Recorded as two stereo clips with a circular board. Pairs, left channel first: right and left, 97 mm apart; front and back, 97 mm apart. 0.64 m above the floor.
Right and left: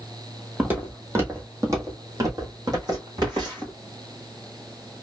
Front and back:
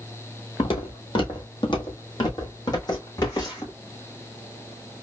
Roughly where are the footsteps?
Ahead.